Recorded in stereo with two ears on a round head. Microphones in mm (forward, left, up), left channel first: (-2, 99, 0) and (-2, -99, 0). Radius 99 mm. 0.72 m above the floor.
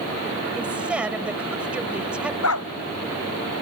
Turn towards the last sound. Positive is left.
turn(degrees=80)